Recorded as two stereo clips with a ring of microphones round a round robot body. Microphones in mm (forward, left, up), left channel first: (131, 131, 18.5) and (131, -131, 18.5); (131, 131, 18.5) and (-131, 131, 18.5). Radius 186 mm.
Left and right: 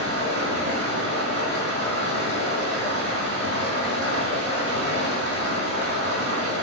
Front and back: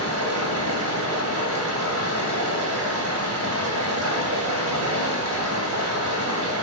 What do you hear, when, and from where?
0.0 s running water: 155° left, 2.5 m